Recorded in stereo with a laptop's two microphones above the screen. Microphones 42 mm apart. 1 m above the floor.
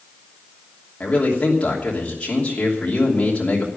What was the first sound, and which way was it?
A man speaking, 30° left (ahead or behind).